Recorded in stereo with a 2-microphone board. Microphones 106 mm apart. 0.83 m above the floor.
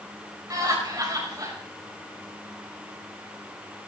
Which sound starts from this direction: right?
Laughter, at 0.5 s.